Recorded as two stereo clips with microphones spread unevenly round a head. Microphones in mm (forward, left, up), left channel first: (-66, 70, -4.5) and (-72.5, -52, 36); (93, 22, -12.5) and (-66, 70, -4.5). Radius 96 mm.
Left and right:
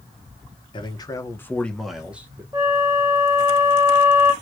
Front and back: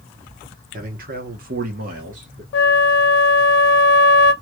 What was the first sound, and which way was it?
A man speaking, 145° left.